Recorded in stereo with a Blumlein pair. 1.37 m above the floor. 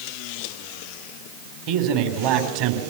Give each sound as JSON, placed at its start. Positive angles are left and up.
{"t": 1.7, "sound": "a man speaking", "azimuth_deg": -45, "distance_m": 4.5}